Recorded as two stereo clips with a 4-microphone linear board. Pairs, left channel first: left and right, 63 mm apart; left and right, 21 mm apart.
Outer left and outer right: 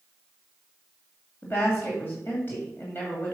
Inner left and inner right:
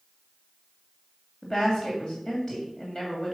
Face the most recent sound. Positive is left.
turn(degrees=35)  # may be behind; listen again after turning